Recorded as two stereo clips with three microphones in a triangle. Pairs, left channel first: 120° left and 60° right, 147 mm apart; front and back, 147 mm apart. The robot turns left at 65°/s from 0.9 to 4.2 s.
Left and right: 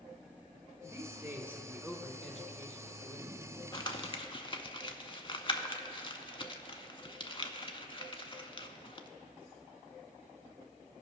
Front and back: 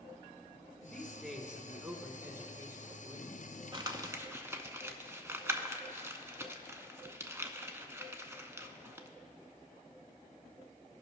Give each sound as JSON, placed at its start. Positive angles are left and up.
{"t": 0.8, "sound": "a man speaking", "azimuth_deg": -65, "distance_m": 1.0}
{"t": 3.7, "sound": "crumpling", "azimuth_deg": 155, "distance_m": 0.5}